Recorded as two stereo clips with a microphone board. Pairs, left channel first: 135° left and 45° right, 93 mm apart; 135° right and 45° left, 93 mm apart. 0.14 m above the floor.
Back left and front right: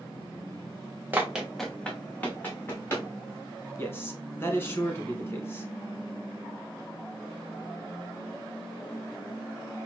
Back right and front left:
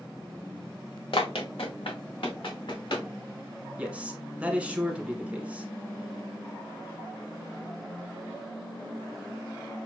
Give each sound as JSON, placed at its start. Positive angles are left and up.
{"t": 1.1, "sound": "running footsteps", "azimuth_deg": -115, "distance_m": 0.8}
{"t": 3.8, "sound": "a man speaking", "azimuth_deg": 105, "distance_m": 1.2}